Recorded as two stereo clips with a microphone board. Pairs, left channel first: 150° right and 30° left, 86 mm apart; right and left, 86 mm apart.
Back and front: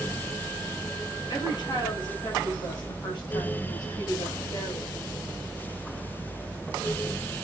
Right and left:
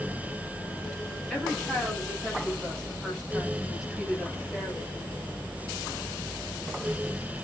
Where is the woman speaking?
Straight behind, 9 m; by 4.9 s 170° left, 7 m.